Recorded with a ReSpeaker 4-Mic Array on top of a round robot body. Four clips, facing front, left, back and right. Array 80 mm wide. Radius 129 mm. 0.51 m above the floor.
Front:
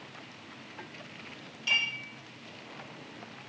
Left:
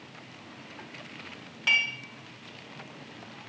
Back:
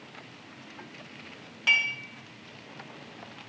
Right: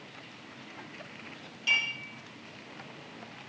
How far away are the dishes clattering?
About 5 m.